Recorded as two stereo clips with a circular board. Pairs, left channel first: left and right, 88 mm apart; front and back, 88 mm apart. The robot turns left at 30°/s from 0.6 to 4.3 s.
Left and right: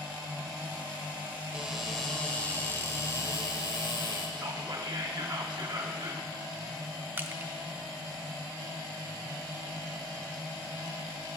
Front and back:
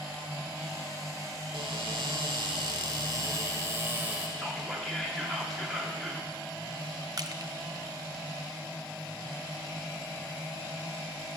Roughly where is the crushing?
Behind right.